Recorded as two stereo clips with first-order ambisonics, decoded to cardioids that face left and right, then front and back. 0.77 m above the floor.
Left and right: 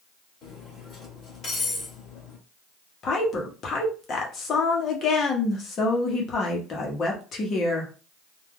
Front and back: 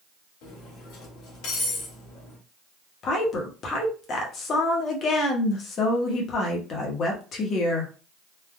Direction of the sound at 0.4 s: 25° left.